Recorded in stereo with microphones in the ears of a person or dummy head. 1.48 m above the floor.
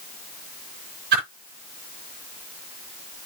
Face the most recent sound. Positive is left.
turn(degrees=-60)  # may be behind; listen again after turning